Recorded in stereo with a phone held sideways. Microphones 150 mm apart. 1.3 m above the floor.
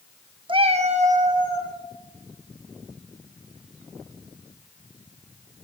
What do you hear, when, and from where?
0.5 s a cat meowing: 35° right (ahead or behind), 0.8 m; by 1.8 s 60° right (ahead or behind), 2.5 m